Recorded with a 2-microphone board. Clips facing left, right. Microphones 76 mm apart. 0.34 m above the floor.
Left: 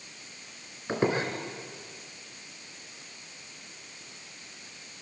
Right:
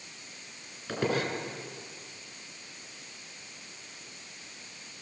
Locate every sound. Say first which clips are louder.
0.9 s a squeak: left 3 dB; 25° left (ahead or behind), 3.5 m